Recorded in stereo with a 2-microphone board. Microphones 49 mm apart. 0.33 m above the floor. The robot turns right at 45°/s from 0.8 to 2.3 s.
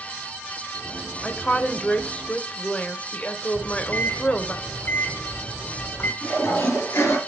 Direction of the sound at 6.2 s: 65° left (ahead or behind).